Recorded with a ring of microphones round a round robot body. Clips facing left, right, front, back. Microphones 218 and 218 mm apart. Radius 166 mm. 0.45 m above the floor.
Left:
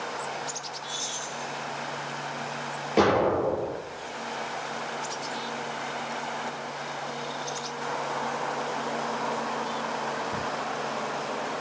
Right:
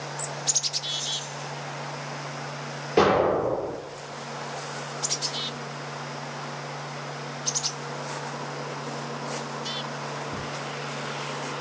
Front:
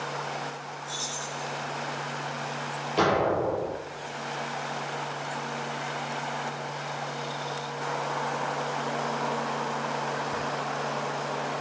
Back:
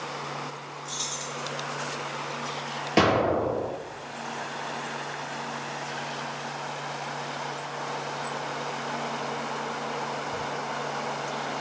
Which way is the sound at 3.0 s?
Straight behind.